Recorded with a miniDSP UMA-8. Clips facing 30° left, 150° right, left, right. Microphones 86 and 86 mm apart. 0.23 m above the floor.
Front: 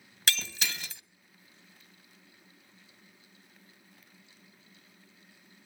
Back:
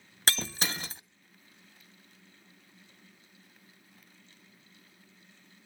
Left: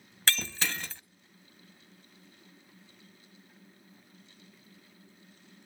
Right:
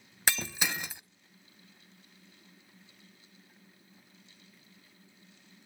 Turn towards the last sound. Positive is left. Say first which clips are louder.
# back 2 dB, even
turn(degrees=-155)